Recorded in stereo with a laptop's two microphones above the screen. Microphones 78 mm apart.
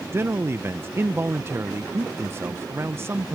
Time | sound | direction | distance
0.1 | a man speaking | 30° right (ahead or behind) | ?